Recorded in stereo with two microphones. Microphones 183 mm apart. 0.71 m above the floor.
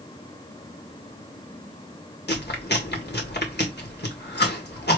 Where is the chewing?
65° left (ahead or behind), 1.9 m.